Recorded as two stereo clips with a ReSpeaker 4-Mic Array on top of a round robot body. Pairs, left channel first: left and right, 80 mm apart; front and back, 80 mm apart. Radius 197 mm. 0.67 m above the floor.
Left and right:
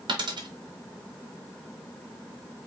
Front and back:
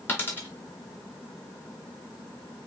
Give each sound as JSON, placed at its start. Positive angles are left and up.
{"t": 0.1, "sound": "a dropped coin", "azimuth_deg": -65, "distance_m": 1.0}